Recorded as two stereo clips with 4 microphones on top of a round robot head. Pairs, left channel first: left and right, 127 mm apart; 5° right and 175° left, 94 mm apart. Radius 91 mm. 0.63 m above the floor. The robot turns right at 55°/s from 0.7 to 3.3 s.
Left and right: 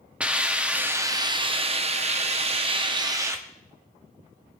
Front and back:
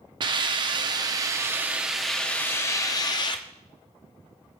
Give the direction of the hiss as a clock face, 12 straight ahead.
6 o'clock.